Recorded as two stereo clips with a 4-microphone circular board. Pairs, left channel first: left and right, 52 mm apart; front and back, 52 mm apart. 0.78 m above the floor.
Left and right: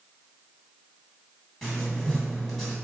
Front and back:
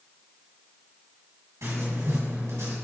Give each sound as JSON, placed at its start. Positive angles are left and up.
{"t": 1.6, "sound": "writing", "azimuth_deg": 175, "distance_m": 2.5}